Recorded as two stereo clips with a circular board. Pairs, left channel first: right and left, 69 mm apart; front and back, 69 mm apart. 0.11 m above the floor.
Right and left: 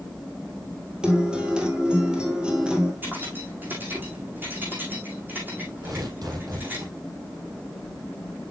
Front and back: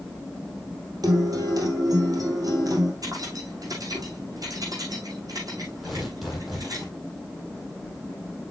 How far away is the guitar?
About 2.5 m.